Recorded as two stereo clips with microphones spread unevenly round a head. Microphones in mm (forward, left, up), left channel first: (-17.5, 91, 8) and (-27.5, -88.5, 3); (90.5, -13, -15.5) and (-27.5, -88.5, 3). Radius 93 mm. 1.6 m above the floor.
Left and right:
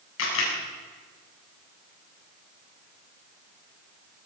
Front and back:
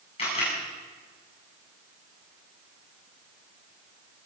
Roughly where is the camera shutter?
Left.